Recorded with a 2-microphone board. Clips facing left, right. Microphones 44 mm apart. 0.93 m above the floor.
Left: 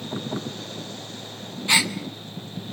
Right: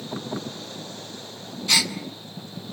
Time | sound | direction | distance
1.7 | a gasp | 20° left (ahead or behind) | 1.2 m